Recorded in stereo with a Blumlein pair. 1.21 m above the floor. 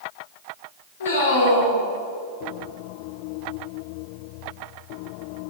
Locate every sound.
1.0 s a man speaking: 70° left, 2.5 m